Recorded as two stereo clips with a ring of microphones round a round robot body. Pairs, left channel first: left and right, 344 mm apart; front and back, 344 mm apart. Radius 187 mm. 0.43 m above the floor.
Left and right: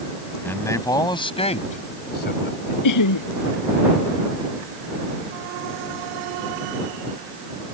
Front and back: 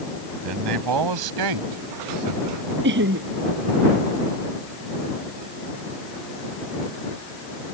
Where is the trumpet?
I don't hear a trumpet.